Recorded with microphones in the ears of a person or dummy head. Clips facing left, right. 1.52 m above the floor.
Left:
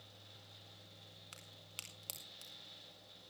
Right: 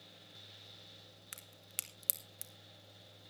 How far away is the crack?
About 1.0 m.